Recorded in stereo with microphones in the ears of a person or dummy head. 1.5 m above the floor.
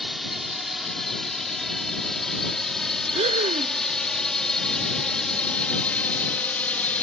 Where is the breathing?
35° right (ahead or behind).